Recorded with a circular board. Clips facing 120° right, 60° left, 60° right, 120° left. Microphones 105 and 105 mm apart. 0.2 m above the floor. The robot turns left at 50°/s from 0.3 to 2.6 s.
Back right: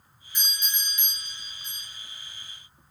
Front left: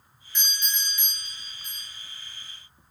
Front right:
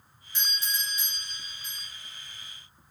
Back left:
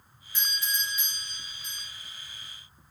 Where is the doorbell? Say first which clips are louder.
Front left 2 dB, back left 1 dB; 55° right, 1.8 m; by 1.9 s 135° right, 1.8 m.